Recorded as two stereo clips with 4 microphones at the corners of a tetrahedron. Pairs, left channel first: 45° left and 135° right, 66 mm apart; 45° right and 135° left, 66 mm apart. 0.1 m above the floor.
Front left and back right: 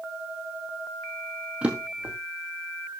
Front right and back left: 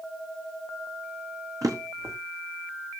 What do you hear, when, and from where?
1.6 s a drawer: 155° left, 2 m